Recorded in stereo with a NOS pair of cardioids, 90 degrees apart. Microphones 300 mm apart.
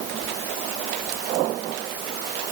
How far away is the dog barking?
I don't hear a dog barking.